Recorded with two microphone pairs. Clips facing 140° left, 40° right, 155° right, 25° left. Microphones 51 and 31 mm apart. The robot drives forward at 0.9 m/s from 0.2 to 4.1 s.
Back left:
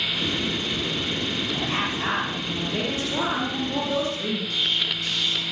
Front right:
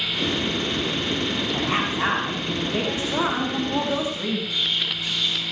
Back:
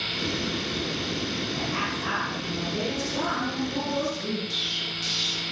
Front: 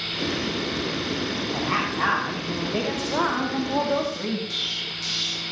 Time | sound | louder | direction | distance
1.5 | a woman speaking | front right 3 dB, front 4 dB | 20° left | 5 m
4.5 | an explosion | even, even | 115° left | 4.5 m